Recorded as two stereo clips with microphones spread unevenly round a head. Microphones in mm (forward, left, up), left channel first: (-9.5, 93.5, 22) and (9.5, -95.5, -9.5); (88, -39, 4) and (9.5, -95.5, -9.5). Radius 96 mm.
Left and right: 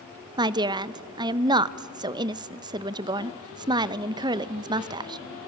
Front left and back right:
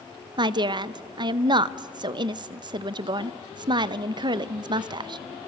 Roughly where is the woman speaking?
Behind right.